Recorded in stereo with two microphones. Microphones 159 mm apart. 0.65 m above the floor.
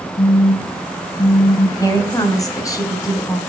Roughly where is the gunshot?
No gunshot in this recording.